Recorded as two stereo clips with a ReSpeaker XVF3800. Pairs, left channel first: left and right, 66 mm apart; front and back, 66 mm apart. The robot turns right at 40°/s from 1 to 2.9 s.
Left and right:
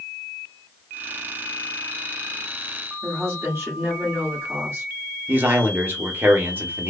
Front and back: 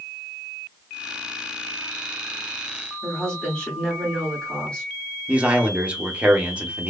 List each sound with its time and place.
3.0 s a woman speaking: 60° right, 1.5 m
5.3 s a man speaking: 120° right, 0.8 m